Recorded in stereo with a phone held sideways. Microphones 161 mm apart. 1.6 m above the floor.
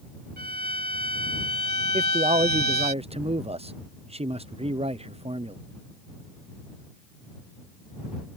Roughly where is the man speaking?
Right.